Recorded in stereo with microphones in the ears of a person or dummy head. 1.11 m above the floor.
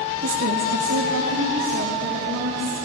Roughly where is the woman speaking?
Right.